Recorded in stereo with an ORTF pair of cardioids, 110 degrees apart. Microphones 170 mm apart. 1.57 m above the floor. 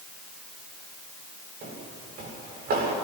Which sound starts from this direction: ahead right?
Footsteps, at 1.6 s.